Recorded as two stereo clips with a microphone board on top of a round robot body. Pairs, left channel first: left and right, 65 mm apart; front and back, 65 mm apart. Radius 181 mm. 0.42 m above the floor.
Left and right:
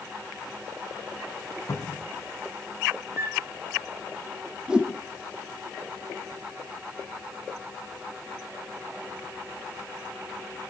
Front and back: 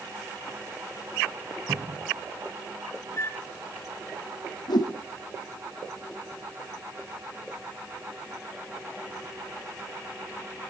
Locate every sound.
1.7 s a cupboard door: 140° left, 3 m
3.2 s a flute: 40° right, 2 m
4.7 s a whoosh: 15° right, 4.5 m